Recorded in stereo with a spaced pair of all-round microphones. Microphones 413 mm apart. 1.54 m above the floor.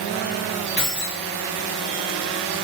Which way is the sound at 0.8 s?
60° left (ahead or behind).